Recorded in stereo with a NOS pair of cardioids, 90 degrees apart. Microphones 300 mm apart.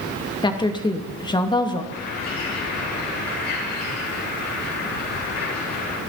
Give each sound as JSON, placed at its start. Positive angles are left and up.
{"t": 0.4, "sound": "a woman speaking", "azimuth_deg": 15, "distance_m": 2.5}
{"t": 1.9, "sound": "a bird", "azimuth_deg": 55, "distance_m": 8.0}